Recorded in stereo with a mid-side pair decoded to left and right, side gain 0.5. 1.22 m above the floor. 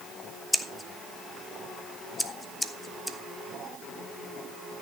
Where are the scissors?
10° left, 1.0 m.